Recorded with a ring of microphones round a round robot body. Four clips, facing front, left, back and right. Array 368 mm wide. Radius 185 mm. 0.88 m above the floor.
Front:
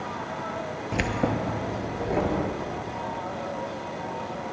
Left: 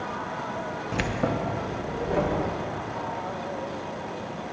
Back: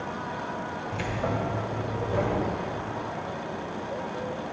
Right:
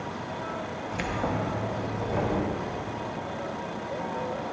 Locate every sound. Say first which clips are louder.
0.9 s keys jangling: left 2 dB, front 4 dB; 30° left, 0.6 m; by 2.4 s 35° left, 1.8 m